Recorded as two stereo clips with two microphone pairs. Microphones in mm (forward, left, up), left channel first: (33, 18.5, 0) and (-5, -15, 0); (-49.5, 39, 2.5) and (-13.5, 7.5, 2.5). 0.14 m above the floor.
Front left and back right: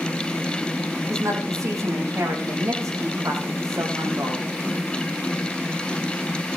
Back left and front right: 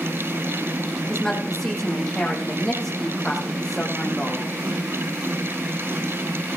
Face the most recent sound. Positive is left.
turn(degrees=-140)